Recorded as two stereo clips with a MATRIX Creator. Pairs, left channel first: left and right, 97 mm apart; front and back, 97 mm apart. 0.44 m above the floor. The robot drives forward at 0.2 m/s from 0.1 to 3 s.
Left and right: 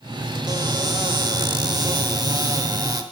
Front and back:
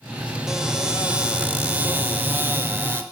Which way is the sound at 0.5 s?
100° right.